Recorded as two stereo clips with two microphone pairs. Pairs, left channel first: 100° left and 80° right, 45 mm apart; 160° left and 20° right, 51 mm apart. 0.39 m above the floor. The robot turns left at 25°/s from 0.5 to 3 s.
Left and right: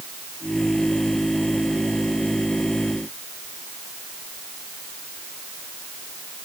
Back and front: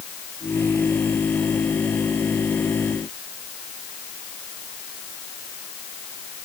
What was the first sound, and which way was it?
Only background noise.